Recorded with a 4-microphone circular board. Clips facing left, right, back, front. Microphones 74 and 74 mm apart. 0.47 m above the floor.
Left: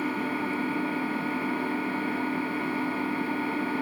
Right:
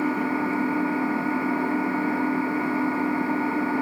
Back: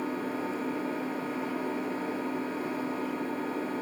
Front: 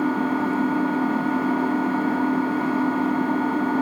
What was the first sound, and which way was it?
An engine running, 20° right.